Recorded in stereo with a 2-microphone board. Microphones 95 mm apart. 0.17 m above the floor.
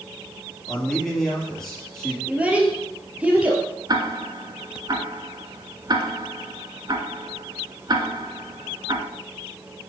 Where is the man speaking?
5° left (ahead or behind), 3.5 m.